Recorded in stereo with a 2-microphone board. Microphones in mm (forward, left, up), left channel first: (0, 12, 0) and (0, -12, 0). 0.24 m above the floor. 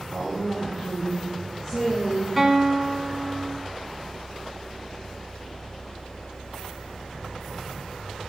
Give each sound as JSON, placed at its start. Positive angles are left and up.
{"t": 0.1, "sound": "a woman speaking", "side_deg": 30, "distance_m": 5.0}
{"t": 2.4, "sound": "a guitar", "side_deg": 0, "distance_m": 1.3}